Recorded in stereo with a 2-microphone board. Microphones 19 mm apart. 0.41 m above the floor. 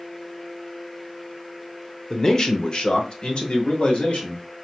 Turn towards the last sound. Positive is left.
turn(degrees=70)  # may be behind; listen again after turning